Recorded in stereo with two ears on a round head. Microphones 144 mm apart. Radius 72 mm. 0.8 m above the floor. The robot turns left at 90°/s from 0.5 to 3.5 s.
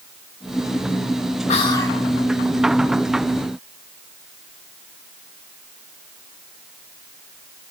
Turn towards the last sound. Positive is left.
turn(degrees=-135)